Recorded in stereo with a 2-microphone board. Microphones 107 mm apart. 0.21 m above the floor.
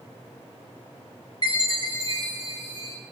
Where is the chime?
40° left (ahead or behind), 4.5 m.